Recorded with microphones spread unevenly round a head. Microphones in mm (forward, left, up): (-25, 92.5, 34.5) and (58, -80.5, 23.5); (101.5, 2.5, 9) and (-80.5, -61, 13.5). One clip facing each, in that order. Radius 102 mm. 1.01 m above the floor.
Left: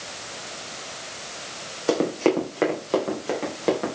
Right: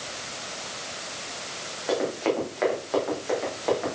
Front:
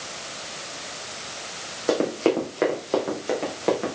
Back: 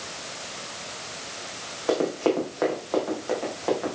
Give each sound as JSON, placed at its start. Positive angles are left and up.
{"t": 1.9, "sound": "running footsteps", "azimuth_deg": 85, "distance_m": 3.5}